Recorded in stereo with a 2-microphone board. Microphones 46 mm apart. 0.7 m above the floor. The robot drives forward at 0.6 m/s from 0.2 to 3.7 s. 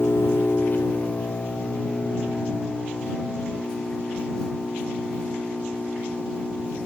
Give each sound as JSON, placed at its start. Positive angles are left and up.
{"t": 0.0, "sound": "an engine running", "side_deg": 60, "distance_m": 0.8}